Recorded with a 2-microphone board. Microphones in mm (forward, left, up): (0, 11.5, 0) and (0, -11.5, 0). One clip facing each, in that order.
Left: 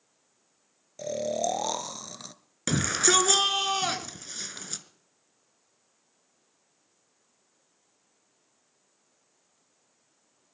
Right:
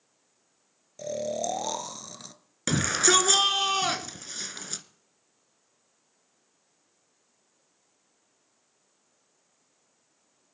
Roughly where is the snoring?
Centre.